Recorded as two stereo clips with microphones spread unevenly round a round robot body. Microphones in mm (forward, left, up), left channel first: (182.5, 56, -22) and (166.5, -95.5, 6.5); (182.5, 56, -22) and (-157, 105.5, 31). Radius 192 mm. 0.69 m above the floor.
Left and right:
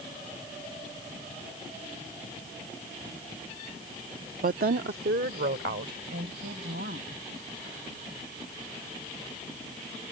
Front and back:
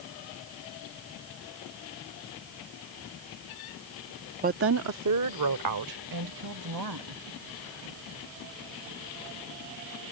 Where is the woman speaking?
115° right; by 7.2 s 145° right.